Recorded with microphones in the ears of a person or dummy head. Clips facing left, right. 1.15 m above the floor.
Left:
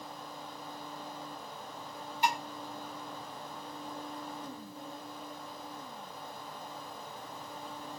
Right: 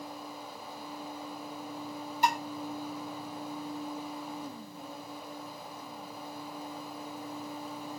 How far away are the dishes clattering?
About 1.4 m.